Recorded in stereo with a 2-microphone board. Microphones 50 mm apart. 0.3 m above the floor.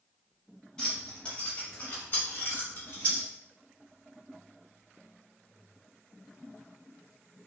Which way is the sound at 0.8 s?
15° left (ahead or behind).